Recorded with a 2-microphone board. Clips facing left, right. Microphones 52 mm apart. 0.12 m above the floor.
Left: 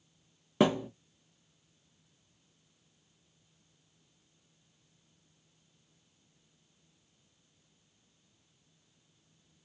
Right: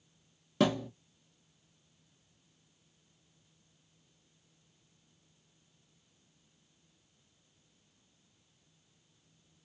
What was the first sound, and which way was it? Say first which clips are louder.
A thud: left 2 dB; 25° left (ahead or behind).